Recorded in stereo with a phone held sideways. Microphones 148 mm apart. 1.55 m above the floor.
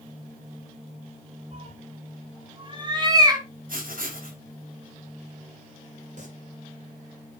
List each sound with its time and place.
1.5 s a cat meowing: 50° right (ahead or behind), 3 m; by 3.5 s 25° right (ahead or behind), 2.5 m
3.7 s writing: 75° right (ahead or behind), 3.5 m
6.2 s singing: 60° right (ahead or behind), 2 m